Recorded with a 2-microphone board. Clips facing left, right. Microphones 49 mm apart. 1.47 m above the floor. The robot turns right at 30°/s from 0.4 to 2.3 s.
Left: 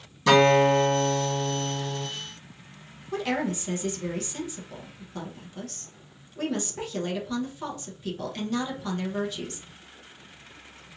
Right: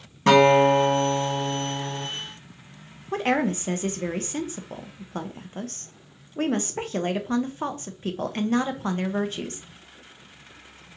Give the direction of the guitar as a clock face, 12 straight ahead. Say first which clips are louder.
Right 2 dB; 3 o'clock.